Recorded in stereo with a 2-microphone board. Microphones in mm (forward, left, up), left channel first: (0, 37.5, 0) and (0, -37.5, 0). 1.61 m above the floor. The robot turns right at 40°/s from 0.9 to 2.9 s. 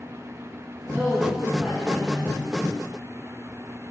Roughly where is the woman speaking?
Ahead right.